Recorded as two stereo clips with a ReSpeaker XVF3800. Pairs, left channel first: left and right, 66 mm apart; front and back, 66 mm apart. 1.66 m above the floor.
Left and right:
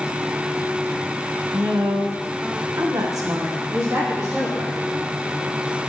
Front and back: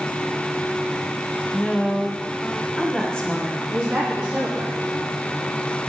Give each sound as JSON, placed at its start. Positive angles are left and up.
{"t": 1.5, "sound": "a woman speaking", "azimuth_deg": -80, "distance_m": 1.3}
{"t": 3.7, "sound": "a woman speaking", "azimuth_deg": -125, "distance_m": 3.0}